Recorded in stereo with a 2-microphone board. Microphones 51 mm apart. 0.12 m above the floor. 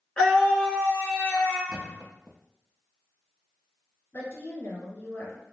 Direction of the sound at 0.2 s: 15° left (ahead or behind).